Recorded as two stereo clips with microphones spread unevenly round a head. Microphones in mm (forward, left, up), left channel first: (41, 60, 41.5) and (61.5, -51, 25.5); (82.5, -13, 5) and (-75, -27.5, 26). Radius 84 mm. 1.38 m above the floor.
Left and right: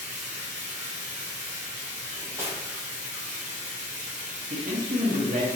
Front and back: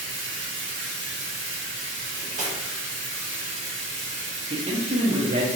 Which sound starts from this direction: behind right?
A man speaking, at 4.5 s.